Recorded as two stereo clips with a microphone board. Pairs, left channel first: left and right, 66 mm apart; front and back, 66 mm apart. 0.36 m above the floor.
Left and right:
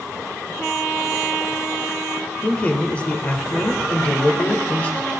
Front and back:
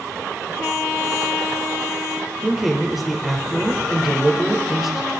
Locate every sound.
2.4 s a man speaking: 95° left, 1.0 m